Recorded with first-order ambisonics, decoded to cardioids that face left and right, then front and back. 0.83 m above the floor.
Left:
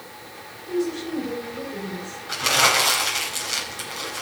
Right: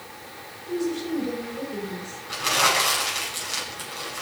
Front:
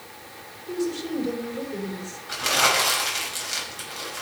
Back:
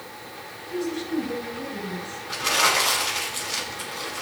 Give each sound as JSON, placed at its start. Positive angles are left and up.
{"t": 0.7, "sound": "a woman speaking", "azimuth_deg": 20, "distance_m": 4.5}
{"t": 2.3, "sound": "crumpling", "azimuth_deg": 60, "distance_m": 5.0}